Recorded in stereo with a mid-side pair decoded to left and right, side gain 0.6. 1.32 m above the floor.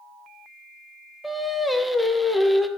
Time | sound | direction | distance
1.2 | singing | 5° right | 0.6 m